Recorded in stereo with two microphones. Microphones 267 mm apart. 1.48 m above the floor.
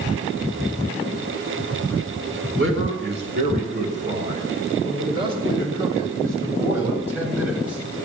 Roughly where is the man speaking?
Right.